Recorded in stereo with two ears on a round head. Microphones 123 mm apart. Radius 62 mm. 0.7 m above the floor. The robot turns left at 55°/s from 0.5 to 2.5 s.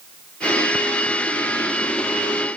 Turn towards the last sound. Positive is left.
No sound to turn to.